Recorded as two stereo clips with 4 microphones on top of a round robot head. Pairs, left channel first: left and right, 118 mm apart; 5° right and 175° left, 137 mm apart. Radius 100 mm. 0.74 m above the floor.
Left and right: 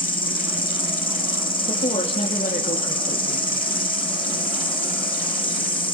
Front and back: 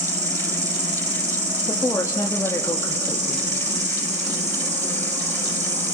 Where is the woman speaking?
60° left, 1.6 m.